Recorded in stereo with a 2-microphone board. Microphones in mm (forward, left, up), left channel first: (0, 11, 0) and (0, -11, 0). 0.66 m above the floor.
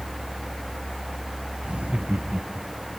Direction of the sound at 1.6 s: 70° right (ahead or behind).